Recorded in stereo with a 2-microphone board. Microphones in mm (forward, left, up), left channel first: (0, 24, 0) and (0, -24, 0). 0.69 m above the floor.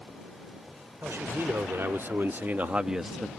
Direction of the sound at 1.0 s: 60° right (ahead or behind).